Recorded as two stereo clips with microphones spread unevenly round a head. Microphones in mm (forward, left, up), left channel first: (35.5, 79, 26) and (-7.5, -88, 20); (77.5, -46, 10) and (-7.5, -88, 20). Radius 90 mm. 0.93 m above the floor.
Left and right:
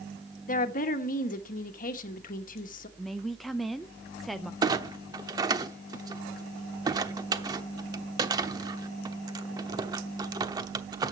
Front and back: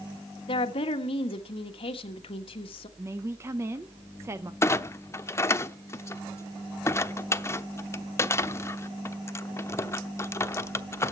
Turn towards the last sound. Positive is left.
turn(degrees=-35)